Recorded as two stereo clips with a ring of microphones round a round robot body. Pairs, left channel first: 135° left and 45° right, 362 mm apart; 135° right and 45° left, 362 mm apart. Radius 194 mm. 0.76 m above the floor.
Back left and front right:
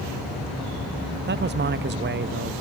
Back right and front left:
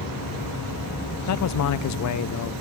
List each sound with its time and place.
1.3 s a man speaking: 100° right, 0.6 m